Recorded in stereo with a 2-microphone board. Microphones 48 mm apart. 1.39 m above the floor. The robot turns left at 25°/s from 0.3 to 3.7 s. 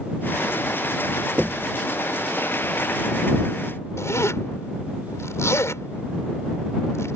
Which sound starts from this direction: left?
A zipper, at 4.0 s.